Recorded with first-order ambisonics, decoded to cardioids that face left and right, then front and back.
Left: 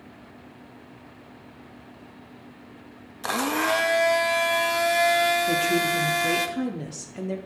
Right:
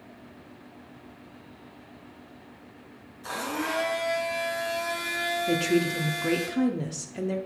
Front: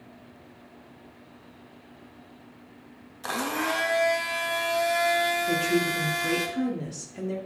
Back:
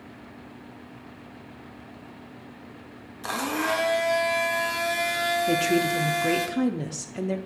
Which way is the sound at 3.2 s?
90° left.